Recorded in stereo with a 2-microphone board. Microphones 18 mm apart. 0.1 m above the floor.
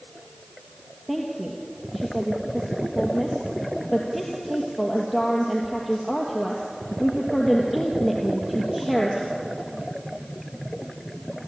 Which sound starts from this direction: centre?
A woman speaking, at 1.1 s.